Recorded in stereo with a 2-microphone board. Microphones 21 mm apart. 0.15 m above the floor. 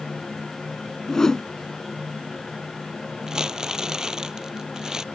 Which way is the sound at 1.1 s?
25° left (ahead or behind).